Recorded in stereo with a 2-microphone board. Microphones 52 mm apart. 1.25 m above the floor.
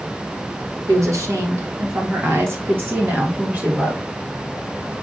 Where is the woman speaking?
85° right, 1.9 m; by 4.1 s 25° right (ahead or behind), 2 m.